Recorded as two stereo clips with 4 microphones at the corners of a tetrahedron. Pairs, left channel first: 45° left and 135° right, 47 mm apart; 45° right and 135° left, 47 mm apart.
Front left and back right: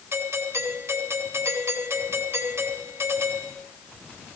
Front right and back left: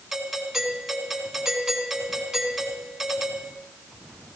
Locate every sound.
0.1 s a doorbell: 145° right, 4 m